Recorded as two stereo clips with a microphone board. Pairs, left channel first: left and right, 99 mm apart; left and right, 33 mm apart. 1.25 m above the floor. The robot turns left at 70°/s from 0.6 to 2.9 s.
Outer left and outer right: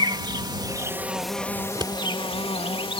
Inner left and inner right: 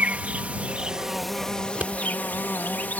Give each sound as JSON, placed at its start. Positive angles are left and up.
{"t": 0.0, "sound": "an insect", "azimuth_deg": -135}
{"t": 1.6, "sound": "scissors", "side_deg": -35}